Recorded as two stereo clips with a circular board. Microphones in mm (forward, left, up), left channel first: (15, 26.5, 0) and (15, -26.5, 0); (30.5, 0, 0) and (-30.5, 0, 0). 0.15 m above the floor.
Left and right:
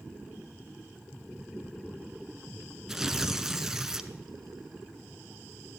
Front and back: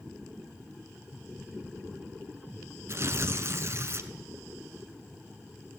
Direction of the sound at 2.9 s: 170° right.